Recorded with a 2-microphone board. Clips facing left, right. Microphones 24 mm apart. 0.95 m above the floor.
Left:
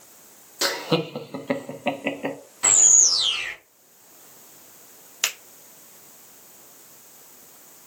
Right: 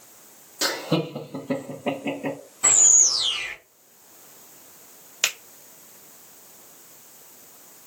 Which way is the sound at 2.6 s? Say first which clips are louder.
Left 1 dB; 60° left (ahead or behind).